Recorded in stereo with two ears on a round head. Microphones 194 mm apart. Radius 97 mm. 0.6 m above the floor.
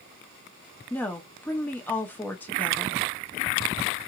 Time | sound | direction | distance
0.9 | a woman speaking | 10° left (ahead or behind) | 0.6 m